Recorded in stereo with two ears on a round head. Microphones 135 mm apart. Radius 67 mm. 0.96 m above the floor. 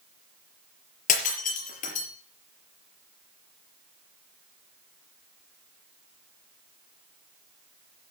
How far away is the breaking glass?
About 5 m.